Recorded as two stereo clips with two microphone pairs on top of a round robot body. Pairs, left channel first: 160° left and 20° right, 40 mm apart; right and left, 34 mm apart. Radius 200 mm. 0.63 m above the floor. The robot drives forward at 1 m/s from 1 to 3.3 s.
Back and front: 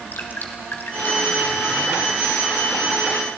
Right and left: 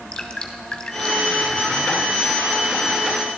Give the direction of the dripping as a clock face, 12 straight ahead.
5 o'clock.